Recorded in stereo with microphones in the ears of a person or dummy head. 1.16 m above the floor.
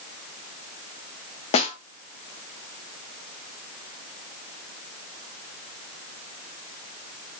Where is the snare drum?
35° left (ahead or behind), 0.6 m.